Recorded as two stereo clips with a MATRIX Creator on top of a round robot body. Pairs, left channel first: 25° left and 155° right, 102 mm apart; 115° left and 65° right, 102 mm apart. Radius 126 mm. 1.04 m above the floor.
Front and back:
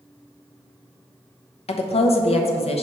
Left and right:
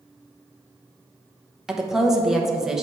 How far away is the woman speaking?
About 0.9 m.